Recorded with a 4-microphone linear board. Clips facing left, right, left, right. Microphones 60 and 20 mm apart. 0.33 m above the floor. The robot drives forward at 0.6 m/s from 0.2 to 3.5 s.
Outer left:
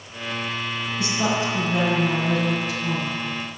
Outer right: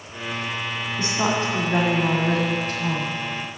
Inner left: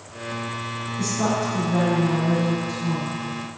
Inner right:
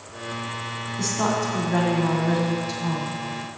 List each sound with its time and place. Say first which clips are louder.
1.0 s a woman speaking: outer right 1 dB, even; 30° right (ahead or behind), 2 m; by 3.2 s 55° right (ahead or behind), 1.4 m